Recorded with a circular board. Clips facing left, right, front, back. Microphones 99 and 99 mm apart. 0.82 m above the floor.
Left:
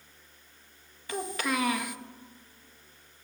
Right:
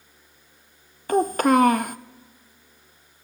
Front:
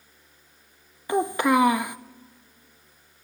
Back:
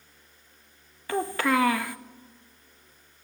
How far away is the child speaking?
About 0.6 m.